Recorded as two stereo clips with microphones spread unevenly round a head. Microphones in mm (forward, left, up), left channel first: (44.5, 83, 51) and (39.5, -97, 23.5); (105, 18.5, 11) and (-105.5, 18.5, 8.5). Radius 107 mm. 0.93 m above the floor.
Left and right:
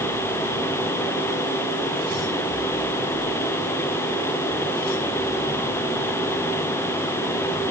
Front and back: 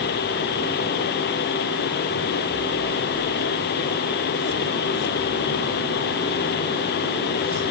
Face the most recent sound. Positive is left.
No sound to turn to.